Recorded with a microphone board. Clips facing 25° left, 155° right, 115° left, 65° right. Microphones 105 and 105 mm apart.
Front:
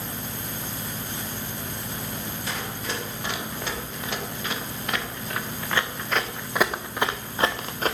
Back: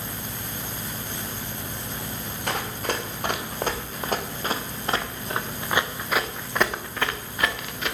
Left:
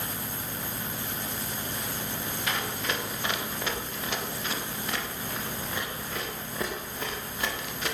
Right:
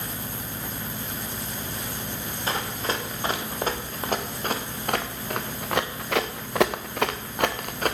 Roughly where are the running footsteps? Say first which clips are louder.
Back 6 dB, right 4 dB; behind right.